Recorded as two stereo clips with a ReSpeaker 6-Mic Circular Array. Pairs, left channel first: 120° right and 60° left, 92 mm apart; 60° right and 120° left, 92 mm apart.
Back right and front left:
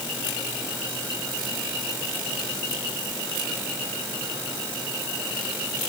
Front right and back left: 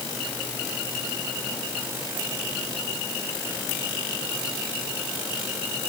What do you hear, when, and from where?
Only background noise.